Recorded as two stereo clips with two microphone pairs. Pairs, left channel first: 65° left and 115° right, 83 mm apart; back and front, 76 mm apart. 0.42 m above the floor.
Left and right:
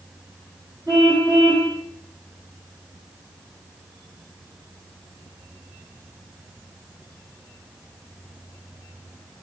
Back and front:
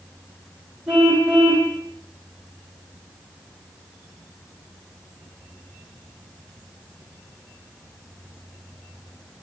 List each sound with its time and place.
0.9 s a car horn: 80° right, 9.5 m